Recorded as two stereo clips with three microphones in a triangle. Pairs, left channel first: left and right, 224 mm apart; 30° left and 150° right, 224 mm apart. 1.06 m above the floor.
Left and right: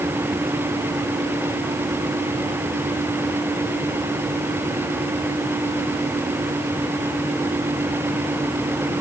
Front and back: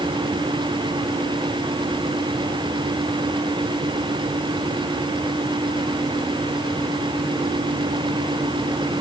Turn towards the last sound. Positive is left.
No sound to turn to.